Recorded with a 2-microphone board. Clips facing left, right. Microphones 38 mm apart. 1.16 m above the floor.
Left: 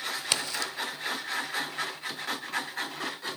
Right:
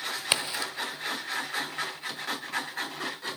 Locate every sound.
0.3 s a crack: 25° right (ahead or behind), 1.5 m